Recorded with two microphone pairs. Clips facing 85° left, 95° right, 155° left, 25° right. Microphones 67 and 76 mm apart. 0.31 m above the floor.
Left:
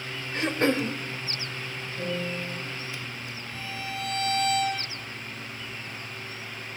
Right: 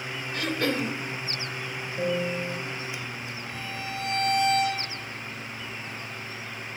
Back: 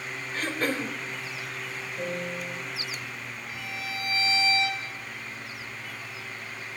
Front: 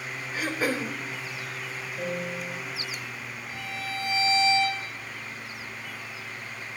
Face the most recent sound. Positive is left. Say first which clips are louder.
# even, front 2 dB
turn(degrees=-85)